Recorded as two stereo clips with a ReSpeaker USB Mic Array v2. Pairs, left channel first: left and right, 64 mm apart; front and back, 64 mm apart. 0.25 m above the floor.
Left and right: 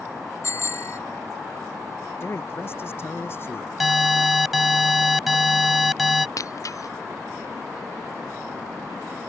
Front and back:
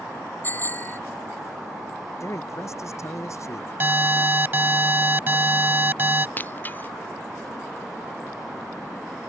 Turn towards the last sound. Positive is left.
turn(degrees=60)